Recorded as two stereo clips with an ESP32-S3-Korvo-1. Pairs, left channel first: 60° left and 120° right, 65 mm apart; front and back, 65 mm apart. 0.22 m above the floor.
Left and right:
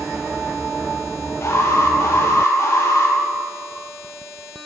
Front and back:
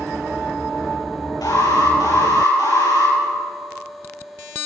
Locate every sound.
1.4 s an alarm: 10° left, 7.5 m